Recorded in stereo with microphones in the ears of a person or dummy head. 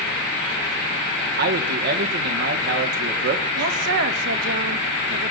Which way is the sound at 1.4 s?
55° right (ahead or behind).